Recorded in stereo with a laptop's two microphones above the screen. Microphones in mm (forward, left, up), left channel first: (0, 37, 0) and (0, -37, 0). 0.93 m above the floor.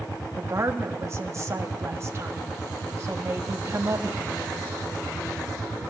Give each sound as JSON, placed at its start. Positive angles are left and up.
{"t": 0.4, "sound": "a woman speaking", "side_deg": -35, "distance_m": 1.4}